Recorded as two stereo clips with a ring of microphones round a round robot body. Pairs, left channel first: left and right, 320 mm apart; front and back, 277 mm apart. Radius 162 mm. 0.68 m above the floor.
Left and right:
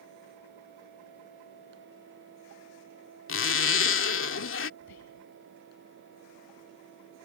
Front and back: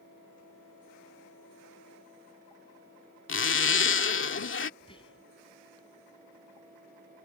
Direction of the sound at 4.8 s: 70° left.